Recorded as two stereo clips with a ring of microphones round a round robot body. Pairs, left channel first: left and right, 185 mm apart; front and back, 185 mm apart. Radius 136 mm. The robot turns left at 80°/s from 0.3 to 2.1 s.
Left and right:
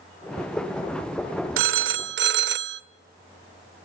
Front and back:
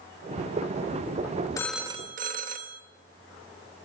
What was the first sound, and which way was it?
A phone ringing, 75° right.